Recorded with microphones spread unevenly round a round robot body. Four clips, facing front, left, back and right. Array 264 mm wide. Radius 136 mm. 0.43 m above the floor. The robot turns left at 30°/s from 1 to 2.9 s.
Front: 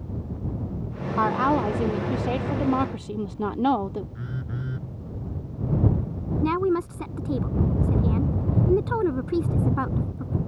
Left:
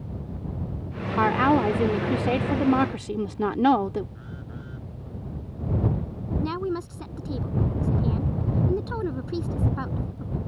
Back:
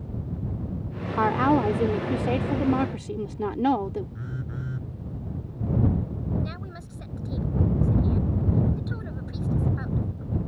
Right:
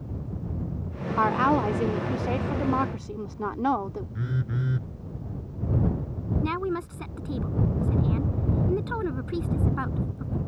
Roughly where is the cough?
No cough in this recording.